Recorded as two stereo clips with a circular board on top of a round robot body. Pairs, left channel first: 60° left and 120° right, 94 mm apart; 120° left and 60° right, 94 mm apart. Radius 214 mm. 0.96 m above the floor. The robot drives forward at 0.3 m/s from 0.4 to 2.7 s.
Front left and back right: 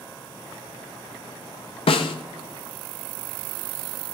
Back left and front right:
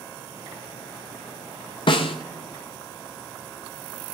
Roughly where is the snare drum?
Left.